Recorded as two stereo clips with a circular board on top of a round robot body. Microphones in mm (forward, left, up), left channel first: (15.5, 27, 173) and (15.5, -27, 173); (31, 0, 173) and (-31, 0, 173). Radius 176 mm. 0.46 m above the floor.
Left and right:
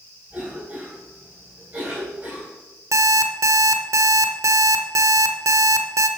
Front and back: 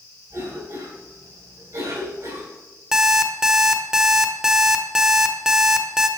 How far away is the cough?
About 4 m.